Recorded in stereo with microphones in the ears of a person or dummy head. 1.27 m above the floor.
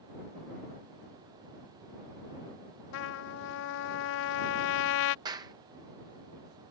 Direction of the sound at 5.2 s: 25° right (ahead or behind).